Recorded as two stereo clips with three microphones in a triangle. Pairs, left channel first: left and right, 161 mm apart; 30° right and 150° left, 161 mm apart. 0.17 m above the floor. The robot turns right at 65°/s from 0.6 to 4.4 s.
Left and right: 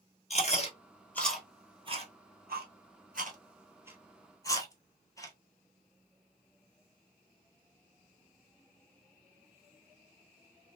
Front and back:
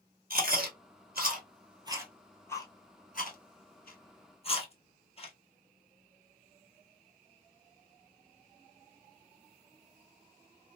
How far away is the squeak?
No squeak in this recording.